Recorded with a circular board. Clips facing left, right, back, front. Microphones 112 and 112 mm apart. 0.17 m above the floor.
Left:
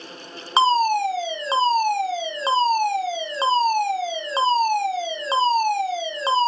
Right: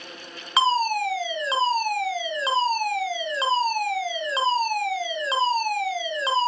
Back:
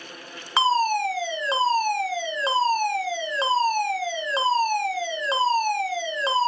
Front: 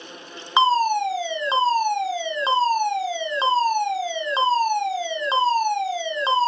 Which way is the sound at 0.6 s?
55° left.